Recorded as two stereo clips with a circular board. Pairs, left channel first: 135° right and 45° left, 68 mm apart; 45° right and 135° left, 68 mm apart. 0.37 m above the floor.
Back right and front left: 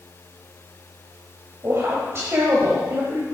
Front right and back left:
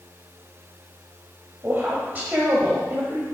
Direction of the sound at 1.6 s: 80° left.